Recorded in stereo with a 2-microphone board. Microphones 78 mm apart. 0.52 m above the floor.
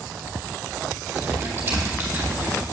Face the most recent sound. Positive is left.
turn(degrees=-25)  # may be behind; listen again after turning